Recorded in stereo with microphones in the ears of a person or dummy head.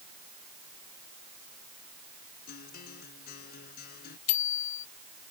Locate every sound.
2.5 s a guitar: 65° left (ahead or behind)
4.3 s a bicycle bell: 85° left